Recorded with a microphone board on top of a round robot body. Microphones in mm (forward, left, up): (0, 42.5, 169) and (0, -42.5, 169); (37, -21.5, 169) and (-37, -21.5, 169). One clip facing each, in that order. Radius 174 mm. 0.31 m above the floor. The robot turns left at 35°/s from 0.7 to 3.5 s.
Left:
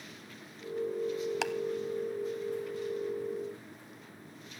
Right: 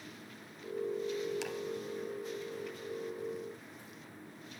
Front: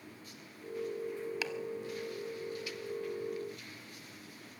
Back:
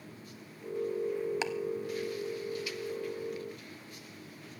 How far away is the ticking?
About 0.6 m.